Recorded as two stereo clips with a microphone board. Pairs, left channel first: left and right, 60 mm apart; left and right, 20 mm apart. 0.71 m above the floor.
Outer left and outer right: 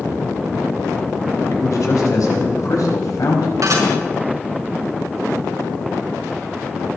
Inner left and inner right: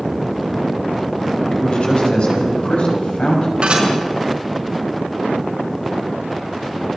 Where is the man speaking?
75° left (ahead or behind), 4.5 m.